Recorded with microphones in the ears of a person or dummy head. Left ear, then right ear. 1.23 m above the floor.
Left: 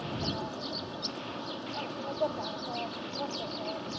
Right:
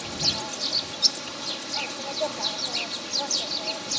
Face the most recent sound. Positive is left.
turn(degrees=-70)  # may be behind; listen again after turning